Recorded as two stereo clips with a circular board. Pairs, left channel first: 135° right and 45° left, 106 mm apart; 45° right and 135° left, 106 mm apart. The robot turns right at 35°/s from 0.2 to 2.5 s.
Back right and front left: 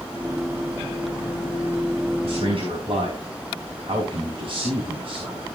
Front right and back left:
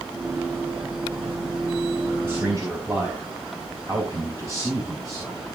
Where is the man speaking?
65° left, 4.5 m; by 5.4 s 75° left, 4.5 m.